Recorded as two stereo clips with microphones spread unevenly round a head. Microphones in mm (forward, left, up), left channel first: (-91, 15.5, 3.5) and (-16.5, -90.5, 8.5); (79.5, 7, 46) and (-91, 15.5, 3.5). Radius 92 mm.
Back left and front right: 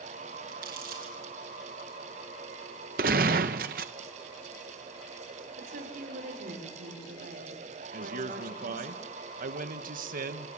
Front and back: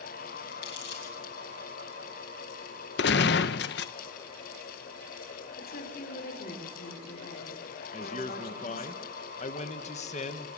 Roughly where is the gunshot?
Ahead right.